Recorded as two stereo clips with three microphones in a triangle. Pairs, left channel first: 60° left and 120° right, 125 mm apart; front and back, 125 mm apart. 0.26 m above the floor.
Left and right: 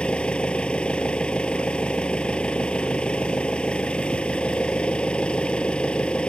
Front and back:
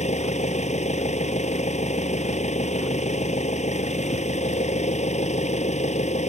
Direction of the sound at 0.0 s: 20° right.